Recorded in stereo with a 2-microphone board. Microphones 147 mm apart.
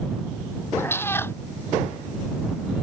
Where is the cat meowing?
15° left (ahead or behind).